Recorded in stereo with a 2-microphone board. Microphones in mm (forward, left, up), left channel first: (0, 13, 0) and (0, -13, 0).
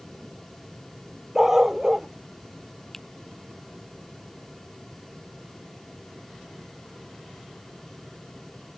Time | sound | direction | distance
1.4 | a dog barking | 15° right (ahead or behind) | ?
2.9 | a finger snap | 10° left (ahead or behind) | ?